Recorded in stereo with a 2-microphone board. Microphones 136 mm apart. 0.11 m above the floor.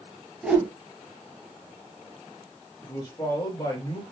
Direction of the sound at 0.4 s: 5° right (ahead or behind).